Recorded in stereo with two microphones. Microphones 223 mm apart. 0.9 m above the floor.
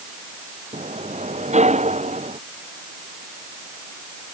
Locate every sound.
0.7 s a sliding door: 30° right (ahead or behind)